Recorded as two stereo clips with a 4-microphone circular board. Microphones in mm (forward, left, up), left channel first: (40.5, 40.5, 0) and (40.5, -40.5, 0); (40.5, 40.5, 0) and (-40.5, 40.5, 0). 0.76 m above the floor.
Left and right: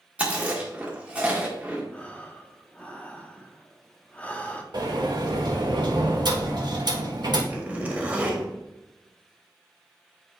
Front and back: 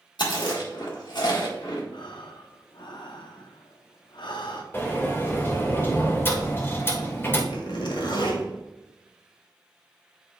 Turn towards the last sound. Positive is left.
turn(degrees=-15)